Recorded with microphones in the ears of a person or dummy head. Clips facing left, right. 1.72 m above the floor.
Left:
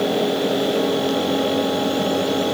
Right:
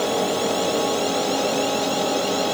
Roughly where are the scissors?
I don't hear scissors.